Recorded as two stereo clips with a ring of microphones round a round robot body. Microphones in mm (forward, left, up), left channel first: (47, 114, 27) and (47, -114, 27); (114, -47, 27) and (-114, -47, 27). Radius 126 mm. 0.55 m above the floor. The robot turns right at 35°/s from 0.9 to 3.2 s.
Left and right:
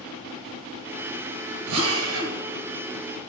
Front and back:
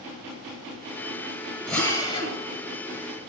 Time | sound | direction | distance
1.7 | a drill | 90° right | 8 m